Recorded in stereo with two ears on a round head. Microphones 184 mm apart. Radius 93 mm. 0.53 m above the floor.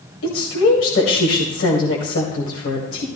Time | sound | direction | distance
0.2 | a woman speaking | 70° left (ahead or behind) | 2.5 m